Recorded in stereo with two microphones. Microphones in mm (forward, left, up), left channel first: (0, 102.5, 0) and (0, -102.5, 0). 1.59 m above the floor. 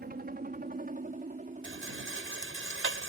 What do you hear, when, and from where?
0.0 s a helicopter: 45° right (ahead or behind); by 3.1 s 30° right (ahead or behind)
1.6 s a rattle: 85° right